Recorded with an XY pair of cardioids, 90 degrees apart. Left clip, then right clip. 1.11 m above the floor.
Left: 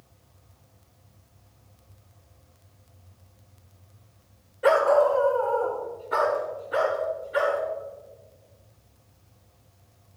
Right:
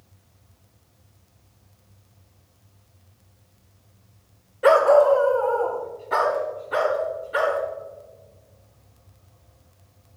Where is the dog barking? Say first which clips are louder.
Right 4 dB; 40° right, 2.0 m; by 7.6 s 80° right, 5.5 m.